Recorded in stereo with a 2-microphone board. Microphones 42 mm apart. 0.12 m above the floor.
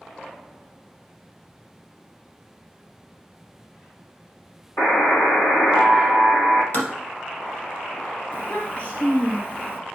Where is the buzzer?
70° left (ahead or behind), 2 m.